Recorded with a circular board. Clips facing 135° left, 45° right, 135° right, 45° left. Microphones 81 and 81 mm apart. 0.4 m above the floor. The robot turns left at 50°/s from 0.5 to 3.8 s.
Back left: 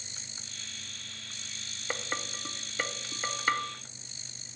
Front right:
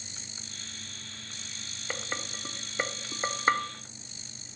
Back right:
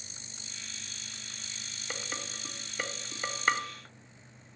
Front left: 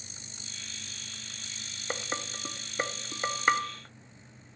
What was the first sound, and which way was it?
Dishes clattering, 55° left.